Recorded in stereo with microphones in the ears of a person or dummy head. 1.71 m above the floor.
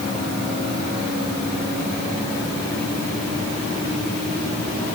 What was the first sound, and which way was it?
Only background noise.